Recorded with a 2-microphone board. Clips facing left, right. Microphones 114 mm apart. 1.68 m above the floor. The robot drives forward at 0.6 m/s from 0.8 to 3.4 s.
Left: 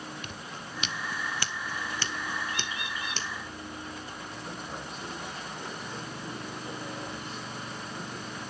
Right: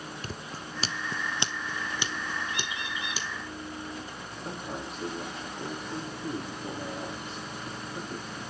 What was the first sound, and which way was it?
Scissors, 35° right (ahead or behind).